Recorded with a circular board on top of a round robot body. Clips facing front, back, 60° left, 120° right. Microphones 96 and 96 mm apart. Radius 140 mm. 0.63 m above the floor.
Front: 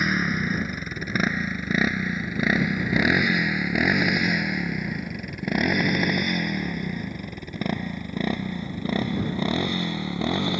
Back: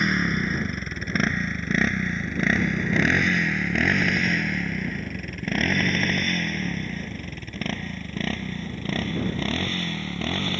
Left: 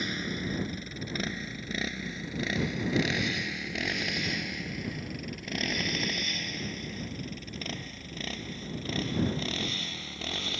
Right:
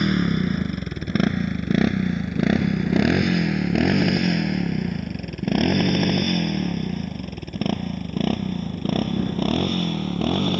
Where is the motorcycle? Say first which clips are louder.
Back 1 dB, right 13 dB; 85° right; by 10.6 s 75° right.